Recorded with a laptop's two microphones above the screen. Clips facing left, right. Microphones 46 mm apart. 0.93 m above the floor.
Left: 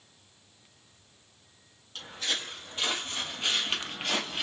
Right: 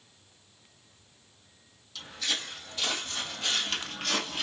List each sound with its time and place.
1.9 s footsteps: 45° left (ahead or behind), 2.5 m; by 4.4 s 15° left (ahead or behind), 1.3 m